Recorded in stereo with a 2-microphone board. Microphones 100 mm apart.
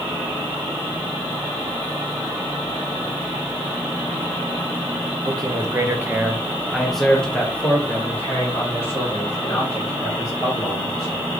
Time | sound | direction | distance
5.2 | a man speaking | 40° right (ahead or behind) | 0.9 m